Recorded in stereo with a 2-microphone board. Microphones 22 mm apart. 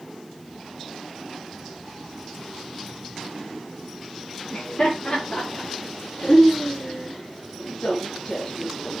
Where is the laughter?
50° left (ahead or behind), 5.5 m; by 9.0 s 25° left (ahead or behind), 4.5 m.